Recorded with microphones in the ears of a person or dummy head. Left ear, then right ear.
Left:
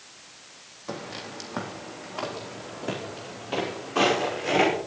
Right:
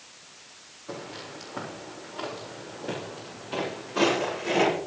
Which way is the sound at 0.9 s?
65° left (ahead or behind).